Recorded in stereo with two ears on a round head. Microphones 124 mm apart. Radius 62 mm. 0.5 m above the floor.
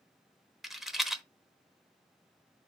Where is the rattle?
Centre (ahead or behind), 0.9 m.